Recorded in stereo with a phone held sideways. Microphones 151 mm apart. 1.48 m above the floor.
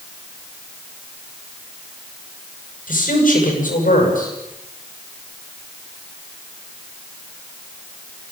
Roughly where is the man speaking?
Left.